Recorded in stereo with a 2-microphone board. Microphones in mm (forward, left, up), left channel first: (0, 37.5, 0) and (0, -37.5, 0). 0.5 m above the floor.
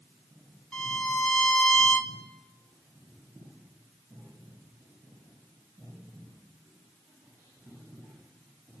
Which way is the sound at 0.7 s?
15° left (ahead or behind).